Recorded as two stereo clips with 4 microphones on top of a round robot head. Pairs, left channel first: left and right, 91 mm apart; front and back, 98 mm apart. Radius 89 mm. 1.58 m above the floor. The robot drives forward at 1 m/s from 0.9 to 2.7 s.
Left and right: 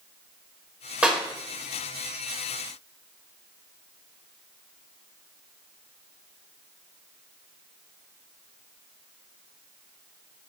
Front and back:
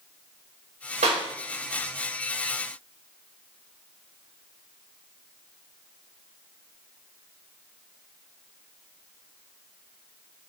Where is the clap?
170° right, 5 m.